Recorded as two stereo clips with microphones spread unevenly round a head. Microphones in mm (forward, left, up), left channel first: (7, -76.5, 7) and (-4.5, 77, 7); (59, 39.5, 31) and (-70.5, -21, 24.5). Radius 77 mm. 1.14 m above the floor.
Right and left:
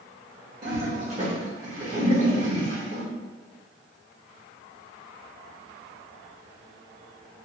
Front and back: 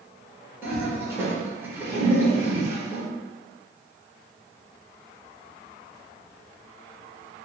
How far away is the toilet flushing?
About 1.4 m.